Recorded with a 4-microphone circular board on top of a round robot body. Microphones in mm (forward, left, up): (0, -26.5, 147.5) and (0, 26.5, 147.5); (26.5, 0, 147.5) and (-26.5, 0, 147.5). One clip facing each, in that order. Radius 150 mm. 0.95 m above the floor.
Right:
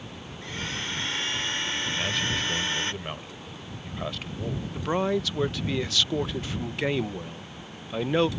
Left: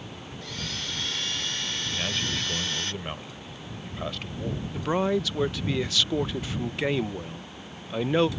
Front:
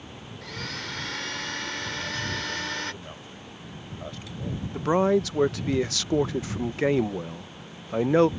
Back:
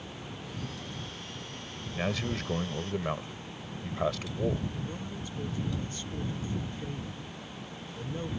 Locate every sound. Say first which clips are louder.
0.4 s a blender: right 3 dB, front 8 dB; 25° right
1.9 s a man speaking: right 1 dB, front 1 dB; straight behind
4.7 s a man speaking: left 1 dB, front 17 dB; straight ahead